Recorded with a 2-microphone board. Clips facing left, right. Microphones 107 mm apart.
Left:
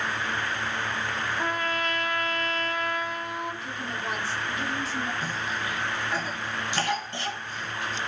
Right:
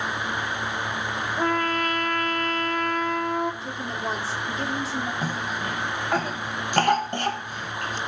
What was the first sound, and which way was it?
A trumpet, 50° right (ahead or behind).